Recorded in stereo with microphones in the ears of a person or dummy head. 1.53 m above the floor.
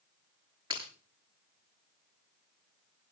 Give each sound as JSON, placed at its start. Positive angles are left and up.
{"t": 0.7, "sound": "breaking glass", "side_deg": -25, "distance_m": 8.0}